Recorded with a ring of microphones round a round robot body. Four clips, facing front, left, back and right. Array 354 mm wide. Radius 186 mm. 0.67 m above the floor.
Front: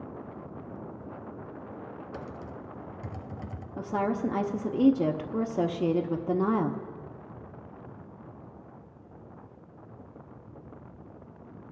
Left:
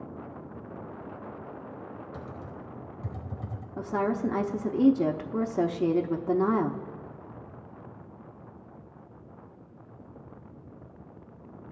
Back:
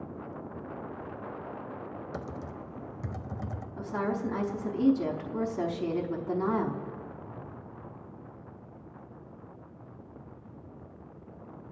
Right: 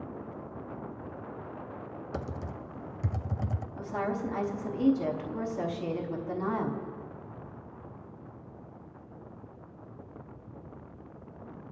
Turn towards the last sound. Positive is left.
turn(degrees=50)